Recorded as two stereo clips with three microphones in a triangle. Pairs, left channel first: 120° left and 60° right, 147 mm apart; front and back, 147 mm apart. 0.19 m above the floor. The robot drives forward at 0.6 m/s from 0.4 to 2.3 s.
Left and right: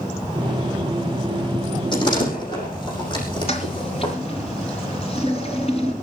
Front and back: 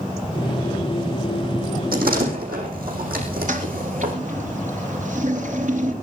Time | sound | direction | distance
1.9 | a door slam | straight behind | 7 m
3.5 | a toilet flushing | 160° left | 4 m